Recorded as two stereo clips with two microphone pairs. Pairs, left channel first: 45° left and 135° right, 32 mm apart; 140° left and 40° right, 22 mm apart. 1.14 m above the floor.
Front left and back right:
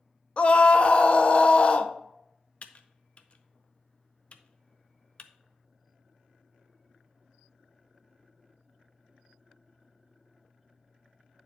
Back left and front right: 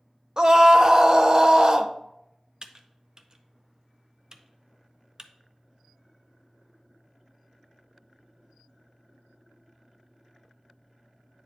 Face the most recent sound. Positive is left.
turn(degrees=5)